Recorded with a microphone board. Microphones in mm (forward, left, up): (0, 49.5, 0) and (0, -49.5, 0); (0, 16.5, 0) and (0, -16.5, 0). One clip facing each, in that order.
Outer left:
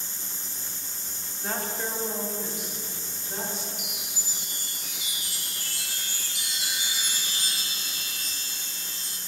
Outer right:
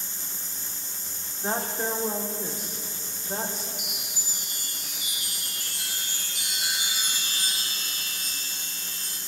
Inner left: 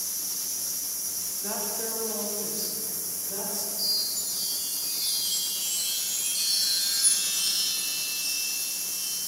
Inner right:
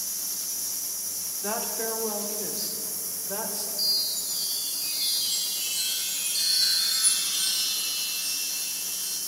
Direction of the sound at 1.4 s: 25° right (ahead or behind).